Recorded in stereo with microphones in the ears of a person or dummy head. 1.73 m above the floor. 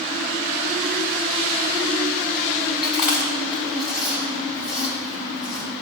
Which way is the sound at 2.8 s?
5° right (ahead or behind).